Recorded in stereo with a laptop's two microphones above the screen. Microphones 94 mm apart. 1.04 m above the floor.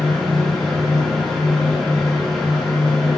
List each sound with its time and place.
0.0 s a fan: 5° left (ahead or behind), 0.9 m